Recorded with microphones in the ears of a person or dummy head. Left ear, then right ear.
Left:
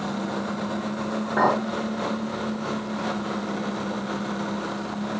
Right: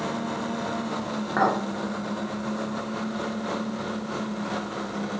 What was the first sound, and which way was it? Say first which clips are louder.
A clink: left 2 dB; 45° right (ahead or behind).